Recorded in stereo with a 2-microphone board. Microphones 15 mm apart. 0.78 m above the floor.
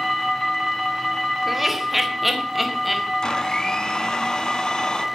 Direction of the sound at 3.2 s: 50° left (ahead or behind).